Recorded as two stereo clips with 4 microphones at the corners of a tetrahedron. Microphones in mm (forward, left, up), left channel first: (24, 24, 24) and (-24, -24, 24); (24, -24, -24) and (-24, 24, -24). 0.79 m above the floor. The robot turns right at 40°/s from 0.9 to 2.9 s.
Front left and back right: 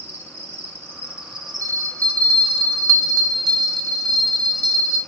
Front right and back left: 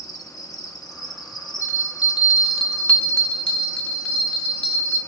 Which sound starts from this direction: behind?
A bell, at 1.6 s.